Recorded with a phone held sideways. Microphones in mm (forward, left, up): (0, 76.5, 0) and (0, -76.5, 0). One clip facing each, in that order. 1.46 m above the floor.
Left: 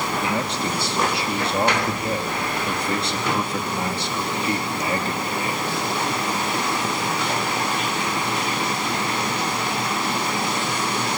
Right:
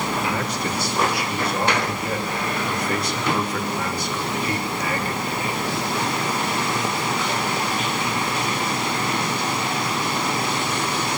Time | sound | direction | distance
0.2 | a man speaking | 25° left (ahead or behind) | 3 m